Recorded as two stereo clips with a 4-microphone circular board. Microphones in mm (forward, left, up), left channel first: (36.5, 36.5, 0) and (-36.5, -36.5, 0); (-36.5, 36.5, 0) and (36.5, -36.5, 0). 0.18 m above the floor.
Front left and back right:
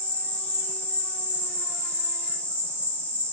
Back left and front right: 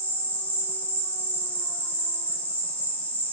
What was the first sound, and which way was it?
An insect, 90° left.